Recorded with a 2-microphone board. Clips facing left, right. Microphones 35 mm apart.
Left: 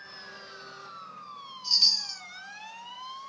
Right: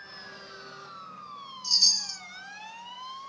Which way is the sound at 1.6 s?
30° left (ahead or behind).